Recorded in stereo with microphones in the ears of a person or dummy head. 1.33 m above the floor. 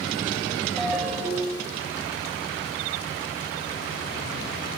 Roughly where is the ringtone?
Centre.